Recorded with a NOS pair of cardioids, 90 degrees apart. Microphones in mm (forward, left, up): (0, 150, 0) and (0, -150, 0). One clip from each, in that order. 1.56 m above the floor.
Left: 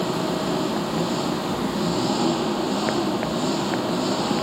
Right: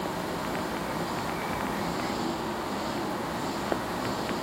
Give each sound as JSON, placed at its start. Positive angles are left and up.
{"t": 0.0, "sound": "an engine running", "azimuth_deg": 70}